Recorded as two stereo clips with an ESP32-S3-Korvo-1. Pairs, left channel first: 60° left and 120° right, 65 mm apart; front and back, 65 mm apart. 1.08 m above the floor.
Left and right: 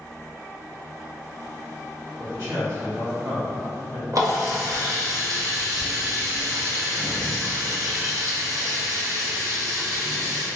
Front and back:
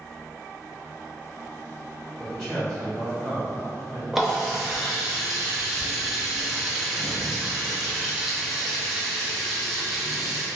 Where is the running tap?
95° right, 0.8 m.